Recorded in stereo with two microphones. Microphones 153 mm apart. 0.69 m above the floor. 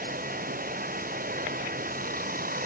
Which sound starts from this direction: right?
Running water, at 0.0 s.